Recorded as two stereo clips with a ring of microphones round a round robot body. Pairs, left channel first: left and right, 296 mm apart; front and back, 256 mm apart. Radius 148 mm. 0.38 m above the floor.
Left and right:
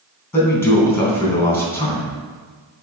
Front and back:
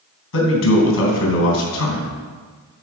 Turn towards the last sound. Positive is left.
turn(degrees=10)